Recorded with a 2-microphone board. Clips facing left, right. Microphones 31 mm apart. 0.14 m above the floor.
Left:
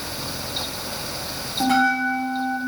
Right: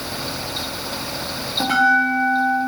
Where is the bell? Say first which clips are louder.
Right 3 dB; 15° right (ahead or behind), 1.9 m.